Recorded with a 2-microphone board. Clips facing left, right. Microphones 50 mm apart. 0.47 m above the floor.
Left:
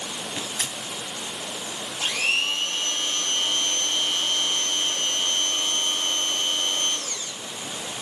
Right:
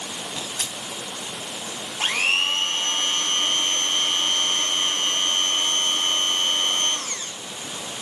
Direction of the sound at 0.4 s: 30° left (ahead or behind).